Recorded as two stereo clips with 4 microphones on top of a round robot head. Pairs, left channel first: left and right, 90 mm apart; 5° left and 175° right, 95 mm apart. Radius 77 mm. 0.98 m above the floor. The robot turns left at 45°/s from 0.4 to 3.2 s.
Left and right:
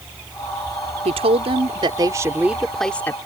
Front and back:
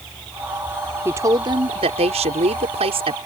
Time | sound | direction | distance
1.1 | a woman speaking | 105° right | ?